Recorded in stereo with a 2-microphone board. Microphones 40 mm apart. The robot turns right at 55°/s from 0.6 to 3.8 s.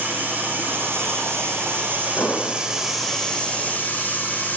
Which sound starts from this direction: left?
An explosion, at 2.2 s.